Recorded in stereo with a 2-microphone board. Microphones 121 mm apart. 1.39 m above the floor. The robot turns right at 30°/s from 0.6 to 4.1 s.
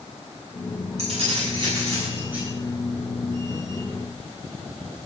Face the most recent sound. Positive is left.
turn(degrees=40)